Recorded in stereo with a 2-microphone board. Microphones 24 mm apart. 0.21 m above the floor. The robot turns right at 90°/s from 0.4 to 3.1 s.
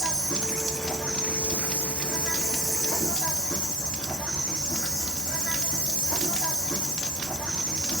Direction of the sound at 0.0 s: 10° right.